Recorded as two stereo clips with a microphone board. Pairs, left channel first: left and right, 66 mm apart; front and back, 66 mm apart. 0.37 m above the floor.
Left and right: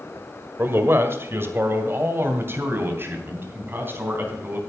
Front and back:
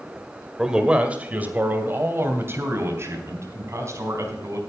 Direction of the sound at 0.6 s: 105° right.